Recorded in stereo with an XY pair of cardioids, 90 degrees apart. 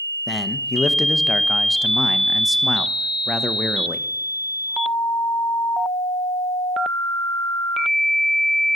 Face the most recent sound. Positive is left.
turn(degrees=30)